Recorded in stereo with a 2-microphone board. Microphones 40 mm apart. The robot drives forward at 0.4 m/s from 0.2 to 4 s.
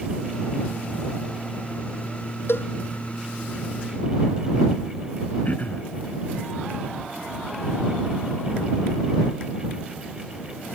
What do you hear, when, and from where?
2.5 s a cowbell: 75° left (ahead or behind); by 2.7 s 70° left (ahead or behind)
5.5 s throat clearing: 40° left (ahead or behind)